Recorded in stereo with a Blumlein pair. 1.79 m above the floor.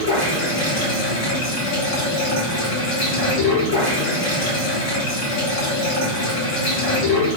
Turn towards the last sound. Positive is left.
turn(degrees=45)